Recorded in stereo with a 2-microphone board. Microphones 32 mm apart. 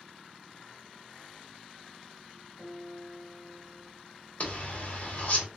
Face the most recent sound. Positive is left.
turn(degrees=55)  # may be behind; listen again after turning